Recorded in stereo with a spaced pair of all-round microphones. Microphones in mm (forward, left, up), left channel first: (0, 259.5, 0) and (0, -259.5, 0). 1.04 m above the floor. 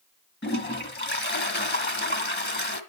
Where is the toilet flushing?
20° left (ahead or behind), 1.2 m.